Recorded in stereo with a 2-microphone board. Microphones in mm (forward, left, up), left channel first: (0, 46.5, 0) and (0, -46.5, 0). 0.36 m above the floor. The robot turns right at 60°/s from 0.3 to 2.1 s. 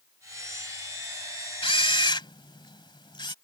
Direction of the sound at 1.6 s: 65° left (ahead or behind).